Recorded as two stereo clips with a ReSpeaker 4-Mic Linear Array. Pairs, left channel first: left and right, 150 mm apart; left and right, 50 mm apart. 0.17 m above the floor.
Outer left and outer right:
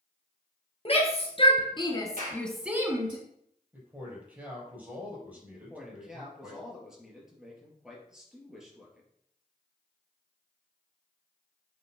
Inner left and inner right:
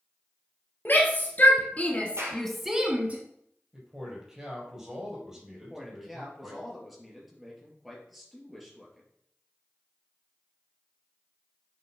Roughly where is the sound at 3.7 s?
Centre.